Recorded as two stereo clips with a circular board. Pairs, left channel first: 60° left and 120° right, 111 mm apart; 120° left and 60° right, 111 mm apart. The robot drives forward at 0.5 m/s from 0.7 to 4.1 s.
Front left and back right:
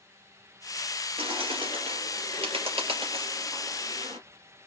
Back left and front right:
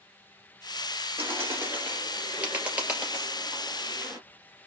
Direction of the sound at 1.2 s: 120° right.